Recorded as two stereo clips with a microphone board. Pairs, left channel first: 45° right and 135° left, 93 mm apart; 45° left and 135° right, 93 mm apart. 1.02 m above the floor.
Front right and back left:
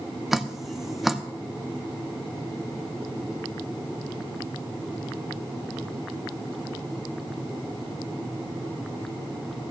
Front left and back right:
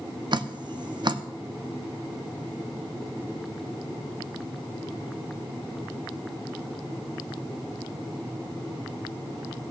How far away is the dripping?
About 0.6 m.